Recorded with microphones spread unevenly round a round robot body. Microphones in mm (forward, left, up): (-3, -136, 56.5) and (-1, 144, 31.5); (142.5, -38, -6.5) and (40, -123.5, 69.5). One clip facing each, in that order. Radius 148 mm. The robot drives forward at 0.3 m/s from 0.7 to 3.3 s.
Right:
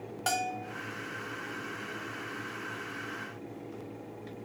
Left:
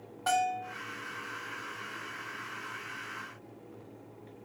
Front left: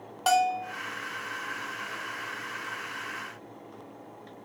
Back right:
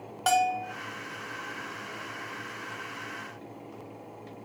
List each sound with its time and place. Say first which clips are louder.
0.3 s a bell: left 4 dB, front left 1 dB; 45° right, 0.9 m